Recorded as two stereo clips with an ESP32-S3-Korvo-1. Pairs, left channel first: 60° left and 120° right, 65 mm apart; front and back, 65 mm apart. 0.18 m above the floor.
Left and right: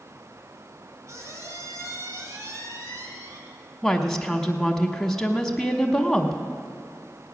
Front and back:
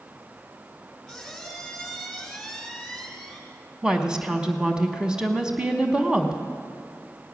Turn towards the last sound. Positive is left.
turn(degrees=130)